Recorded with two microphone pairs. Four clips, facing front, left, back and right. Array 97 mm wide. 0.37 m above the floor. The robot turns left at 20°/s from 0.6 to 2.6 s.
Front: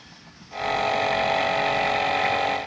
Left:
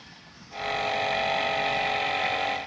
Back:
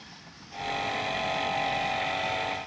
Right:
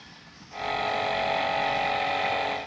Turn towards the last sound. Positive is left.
No sound to turn to.